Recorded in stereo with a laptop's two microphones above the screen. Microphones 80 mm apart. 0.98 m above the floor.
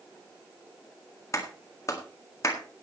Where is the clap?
40° left (ahead or behind), 1.8 m.